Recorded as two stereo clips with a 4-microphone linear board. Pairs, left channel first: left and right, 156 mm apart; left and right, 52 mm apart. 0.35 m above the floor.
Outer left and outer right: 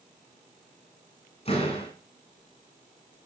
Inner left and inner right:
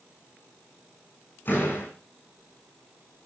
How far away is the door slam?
About 9 m.